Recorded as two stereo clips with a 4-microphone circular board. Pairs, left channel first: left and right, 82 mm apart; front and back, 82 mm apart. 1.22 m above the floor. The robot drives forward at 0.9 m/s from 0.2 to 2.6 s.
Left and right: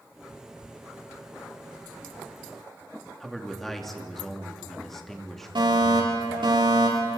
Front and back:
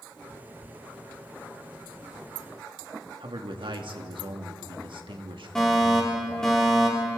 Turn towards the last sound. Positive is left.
turn(degrees=-85)